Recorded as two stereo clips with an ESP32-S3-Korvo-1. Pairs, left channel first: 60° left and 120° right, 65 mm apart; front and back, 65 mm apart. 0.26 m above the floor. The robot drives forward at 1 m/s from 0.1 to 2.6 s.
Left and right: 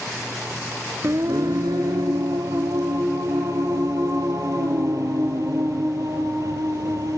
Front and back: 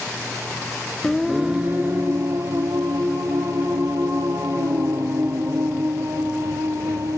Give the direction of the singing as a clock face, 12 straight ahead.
3 o'clock.